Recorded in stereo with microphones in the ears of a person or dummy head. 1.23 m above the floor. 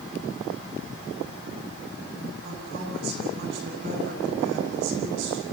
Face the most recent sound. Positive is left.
turn(degrees=-75)  # may be behind; listen again after turning